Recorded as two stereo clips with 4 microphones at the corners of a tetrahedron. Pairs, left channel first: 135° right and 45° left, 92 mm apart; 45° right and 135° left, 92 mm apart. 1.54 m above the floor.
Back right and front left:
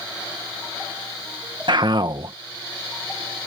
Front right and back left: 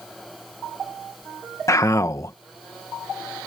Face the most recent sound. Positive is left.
turn(degrees=10)